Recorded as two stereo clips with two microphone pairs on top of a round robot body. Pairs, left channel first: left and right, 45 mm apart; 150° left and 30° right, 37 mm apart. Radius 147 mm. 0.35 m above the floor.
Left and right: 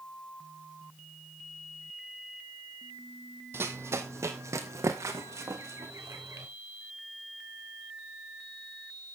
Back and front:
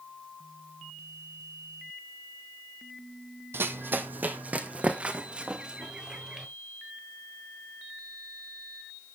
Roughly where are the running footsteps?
Ahead right.